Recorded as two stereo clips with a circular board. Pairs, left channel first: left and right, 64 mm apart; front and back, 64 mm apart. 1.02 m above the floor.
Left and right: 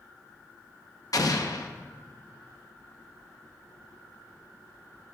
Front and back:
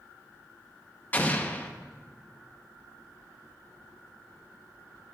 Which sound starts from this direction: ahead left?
An explosion, at 1.1 s.